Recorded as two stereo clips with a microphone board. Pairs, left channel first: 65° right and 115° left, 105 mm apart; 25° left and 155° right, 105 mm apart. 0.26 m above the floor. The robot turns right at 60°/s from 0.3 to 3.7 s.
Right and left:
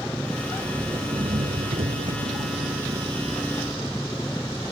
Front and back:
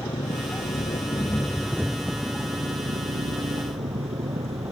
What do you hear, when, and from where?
0.0 s an engine running: 10° left; by 4.7 s 145° right